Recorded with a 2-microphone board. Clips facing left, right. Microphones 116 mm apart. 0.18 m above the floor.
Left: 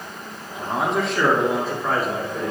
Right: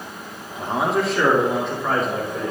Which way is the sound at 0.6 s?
5° right (ahead or behind).